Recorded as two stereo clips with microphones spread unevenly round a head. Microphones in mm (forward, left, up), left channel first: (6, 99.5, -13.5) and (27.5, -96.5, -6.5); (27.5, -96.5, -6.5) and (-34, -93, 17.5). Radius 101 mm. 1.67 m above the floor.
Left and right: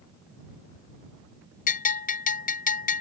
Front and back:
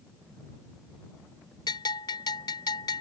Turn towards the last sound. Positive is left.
turn(degrees=45)